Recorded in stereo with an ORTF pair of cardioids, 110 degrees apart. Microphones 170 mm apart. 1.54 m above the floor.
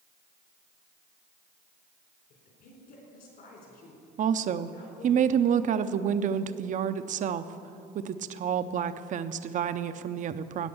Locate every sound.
2.3 s a woman speaking: 65° left, 4 m
4.2 s a woman speaking: 50° right, 0.6 m